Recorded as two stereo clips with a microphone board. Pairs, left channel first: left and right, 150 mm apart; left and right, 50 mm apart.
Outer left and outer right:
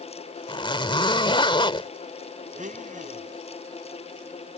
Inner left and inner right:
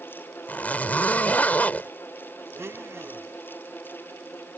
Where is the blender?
55° right (ahead or behind).